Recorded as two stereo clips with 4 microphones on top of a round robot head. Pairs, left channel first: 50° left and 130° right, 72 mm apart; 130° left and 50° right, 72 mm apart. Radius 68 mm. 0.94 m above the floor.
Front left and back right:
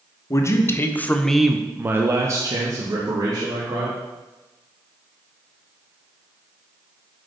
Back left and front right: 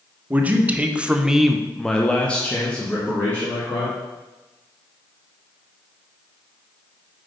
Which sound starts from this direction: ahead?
A man speaking, at 0.3 s.